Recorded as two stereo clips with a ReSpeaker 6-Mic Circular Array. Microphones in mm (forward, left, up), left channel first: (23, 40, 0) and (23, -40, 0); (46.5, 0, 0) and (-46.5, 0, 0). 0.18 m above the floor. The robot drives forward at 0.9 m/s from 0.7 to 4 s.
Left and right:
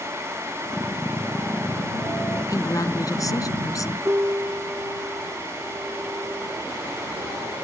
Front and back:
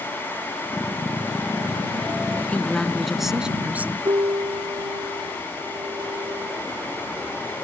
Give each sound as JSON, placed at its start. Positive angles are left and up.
{"t": 2.5, "sound": "a woman speaking", "azimuth_deg": 70}
{"t": 4.0, "sound": "a piano", "azimuth_deg": -150}